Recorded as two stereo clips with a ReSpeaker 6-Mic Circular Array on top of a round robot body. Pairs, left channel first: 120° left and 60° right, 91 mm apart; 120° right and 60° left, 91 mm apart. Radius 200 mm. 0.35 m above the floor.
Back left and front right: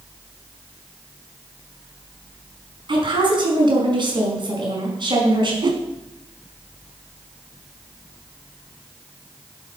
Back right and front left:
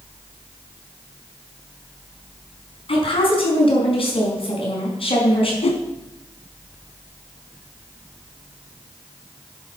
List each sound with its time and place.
2.9 s a woman speaking: 100° right, 5 m
5.6 s a whoosh: 105° right, 1.0 m